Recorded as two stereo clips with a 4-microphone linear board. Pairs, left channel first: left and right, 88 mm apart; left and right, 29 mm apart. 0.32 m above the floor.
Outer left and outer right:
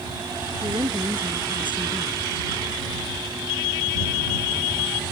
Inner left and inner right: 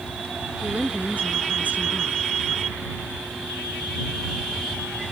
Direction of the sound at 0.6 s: 70° right (ahead or behind).